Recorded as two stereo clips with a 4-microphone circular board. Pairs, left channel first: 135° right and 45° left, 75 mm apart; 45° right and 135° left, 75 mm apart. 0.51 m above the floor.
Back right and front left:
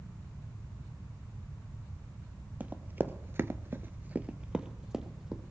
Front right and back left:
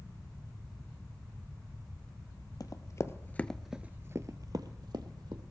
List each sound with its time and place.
2.6 s running footsteps: 20° right, 0.9 m; by 5.4 s 130° left, 1.3 m